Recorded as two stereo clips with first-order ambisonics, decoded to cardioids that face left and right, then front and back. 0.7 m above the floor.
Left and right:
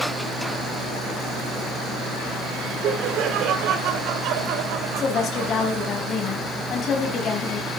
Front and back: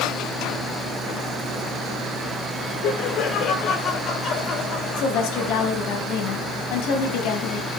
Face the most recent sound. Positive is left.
turn(degrees=30)